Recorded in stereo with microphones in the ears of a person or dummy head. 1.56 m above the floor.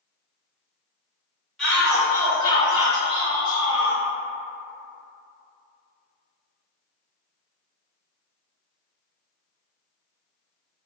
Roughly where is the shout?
Centre.